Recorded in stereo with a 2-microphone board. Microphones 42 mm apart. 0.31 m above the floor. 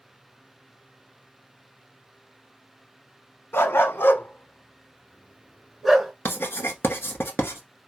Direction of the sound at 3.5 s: 85° left.